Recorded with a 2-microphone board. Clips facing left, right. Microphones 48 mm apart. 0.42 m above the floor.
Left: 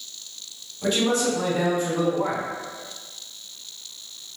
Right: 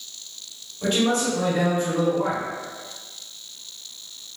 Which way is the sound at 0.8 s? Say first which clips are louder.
Even; 45° right (ahead or behind).